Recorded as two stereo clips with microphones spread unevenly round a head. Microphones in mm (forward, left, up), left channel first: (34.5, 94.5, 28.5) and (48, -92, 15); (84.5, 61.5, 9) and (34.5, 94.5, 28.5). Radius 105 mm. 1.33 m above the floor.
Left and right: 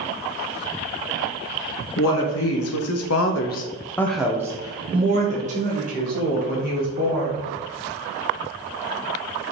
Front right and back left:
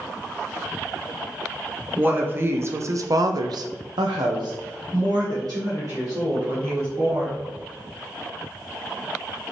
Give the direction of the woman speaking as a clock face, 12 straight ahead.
9 o'clock.